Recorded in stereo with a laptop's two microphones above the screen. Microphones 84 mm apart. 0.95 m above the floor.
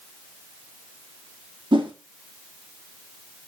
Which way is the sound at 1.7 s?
70° right (ahead or behind).